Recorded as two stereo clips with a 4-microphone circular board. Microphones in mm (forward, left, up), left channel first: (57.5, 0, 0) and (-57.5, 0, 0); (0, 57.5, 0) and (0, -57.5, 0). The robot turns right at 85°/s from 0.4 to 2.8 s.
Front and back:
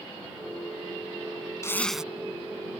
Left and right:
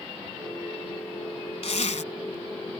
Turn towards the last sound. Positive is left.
turn(degrees=165)